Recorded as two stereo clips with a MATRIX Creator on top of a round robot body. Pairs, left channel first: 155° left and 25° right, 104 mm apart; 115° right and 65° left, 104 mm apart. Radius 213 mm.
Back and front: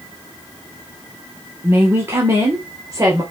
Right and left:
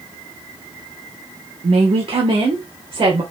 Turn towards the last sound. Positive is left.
turn(degrees=35)